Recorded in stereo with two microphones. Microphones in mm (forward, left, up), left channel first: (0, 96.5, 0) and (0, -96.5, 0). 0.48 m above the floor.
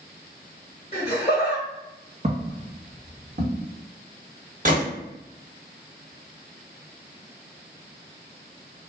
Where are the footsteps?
35° right (ahead or behind), 1.0 m; by 3.7 s 65° right (ahead or behind), 1.3 m.